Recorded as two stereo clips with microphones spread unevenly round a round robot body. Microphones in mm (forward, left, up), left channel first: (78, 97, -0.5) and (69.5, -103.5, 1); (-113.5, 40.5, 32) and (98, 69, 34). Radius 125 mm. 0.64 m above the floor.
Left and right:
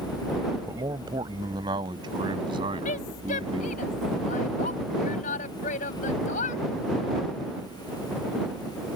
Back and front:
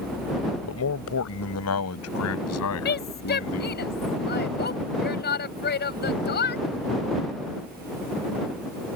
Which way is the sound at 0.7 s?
170° right.